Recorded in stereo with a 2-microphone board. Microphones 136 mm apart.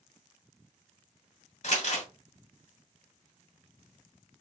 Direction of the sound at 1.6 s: 60° left (ahead or behind).